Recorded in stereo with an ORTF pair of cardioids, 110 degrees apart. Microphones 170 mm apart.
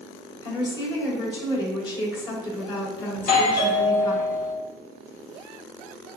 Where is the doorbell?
60° left, 1.4 m.